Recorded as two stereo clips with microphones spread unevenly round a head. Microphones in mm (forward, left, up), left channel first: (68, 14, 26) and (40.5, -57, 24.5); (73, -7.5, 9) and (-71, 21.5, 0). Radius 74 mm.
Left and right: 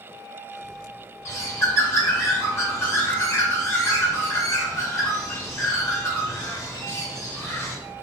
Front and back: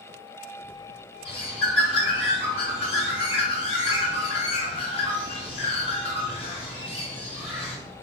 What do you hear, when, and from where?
1.2 s a bird: 30° left, 0.9 m